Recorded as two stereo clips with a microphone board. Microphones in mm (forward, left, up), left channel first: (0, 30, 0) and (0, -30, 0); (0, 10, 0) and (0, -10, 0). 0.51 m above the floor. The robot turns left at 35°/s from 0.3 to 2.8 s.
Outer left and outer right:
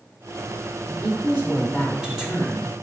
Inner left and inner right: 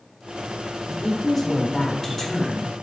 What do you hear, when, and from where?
0.9 s a woman speaking: 20° right (ahead or behind), 1.3 m; by 2.7 s 5° right (ahead or behind), 1.3 m